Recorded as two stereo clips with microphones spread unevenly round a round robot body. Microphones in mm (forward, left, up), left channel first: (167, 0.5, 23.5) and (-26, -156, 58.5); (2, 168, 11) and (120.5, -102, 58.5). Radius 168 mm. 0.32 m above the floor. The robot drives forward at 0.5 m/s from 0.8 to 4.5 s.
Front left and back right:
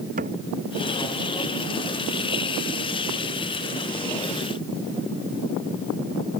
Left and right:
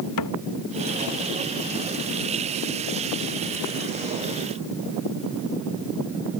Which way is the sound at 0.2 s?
150° left.